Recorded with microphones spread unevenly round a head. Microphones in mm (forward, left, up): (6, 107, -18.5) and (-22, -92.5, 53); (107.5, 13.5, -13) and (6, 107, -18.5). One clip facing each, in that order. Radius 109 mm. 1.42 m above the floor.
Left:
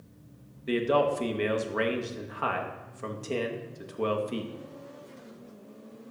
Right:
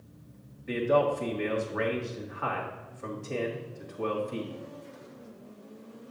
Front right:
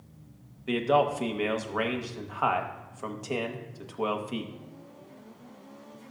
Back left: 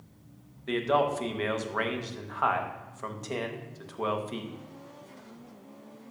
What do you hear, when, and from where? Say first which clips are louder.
0.7 s a man speaking: even, front right 2 dB; 35° left, 1.1 m